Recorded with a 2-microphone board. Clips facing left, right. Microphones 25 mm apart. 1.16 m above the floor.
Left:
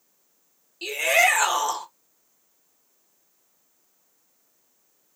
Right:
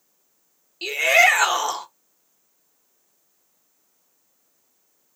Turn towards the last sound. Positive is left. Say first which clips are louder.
# right 4 dB
turn(degrees=-30)  # may be behind; listen again after turning